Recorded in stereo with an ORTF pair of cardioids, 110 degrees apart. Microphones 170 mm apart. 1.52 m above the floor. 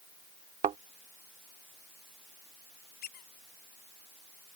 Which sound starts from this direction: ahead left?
A squeak, at 3.0 s.